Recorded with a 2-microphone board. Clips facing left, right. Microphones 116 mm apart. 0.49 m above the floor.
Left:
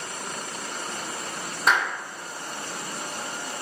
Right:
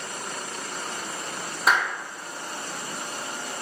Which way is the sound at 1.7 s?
Centre (ahead or behind).